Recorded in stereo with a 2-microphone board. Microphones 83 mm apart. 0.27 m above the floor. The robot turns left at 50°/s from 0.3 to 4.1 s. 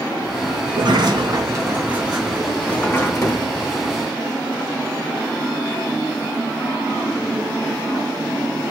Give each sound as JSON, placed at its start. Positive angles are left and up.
{"t": 0.7, "sound": "a sliding door", "azimuth_deg": -95, "distance_m": 2.5}